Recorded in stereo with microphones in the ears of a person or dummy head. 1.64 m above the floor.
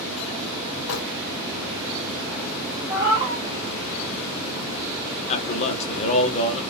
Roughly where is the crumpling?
Left.